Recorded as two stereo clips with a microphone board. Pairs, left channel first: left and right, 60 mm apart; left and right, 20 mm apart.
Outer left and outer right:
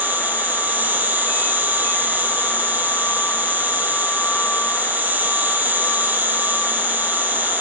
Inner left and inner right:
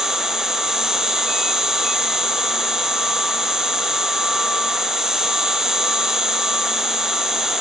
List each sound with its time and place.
0.0 s an insect: 30° right (ahead or behind), 1.4 m